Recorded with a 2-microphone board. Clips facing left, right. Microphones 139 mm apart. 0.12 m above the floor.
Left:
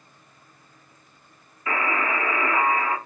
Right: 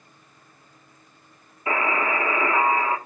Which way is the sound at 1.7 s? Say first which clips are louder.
Right 2 dB; 25° right (ahead or behind).